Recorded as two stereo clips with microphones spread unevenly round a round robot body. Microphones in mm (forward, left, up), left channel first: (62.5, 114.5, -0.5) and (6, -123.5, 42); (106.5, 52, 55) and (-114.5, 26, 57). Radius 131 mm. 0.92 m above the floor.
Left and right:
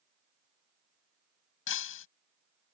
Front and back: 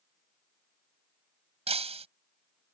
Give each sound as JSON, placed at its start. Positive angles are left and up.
{"t": 1.7, "sound": "breaking glass", "azimuth_deg": 125}